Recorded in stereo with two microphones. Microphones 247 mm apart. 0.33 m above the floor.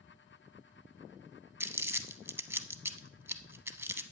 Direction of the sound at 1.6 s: 10° right (ahead or behind).